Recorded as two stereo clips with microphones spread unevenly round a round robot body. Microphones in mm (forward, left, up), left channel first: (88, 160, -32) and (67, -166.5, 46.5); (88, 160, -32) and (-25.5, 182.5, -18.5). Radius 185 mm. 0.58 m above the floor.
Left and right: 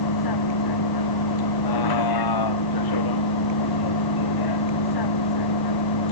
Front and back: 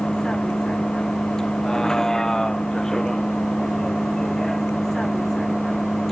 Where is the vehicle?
75° left.